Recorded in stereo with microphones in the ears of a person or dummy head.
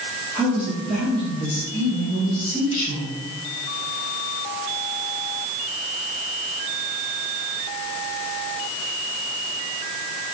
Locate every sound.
0.3 s a man speaking: 10° right (ahead or behind), 2 m; by 3.1 s 40° left (ahead or behind), 3 m